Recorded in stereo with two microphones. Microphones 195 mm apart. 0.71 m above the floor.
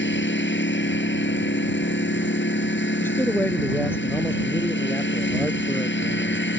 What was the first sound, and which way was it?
A lawn mower, 75° left (ahead or behind).